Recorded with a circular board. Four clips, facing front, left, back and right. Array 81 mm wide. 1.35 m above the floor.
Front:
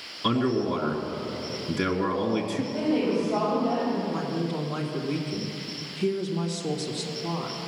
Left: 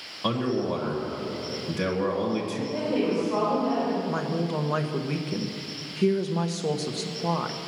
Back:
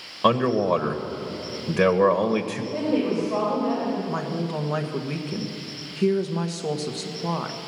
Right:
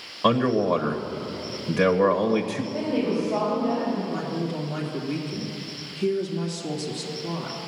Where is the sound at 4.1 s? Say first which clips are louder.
Left 1 dB, back 1 dB; 135° left, 1.2 m.